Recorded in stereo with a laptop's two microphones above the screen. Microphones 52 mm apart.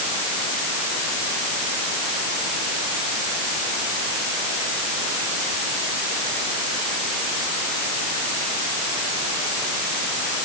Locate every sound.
Only background noise.